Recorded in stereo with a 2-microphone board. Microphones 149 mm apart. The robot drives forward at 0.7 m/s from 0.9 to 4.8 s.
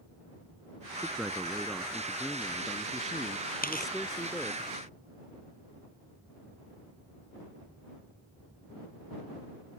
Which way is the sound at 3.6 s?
75° left (ahead or behind).